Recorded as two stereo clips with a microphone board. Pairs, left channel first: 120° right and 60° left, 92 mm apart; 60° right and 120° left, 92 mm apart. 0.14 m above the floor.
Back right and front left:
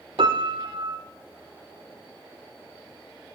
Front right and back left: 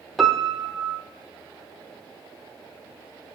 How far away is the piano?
About 0.7 m.